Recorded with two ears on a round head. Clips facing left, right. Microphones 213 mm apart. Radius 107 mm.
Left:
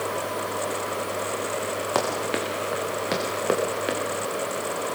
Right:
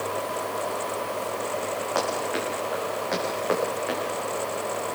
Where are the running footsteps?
50° left (ahead or behind), 7 m; by 4.0 s 45° left (ahead or behind), 7.5 m.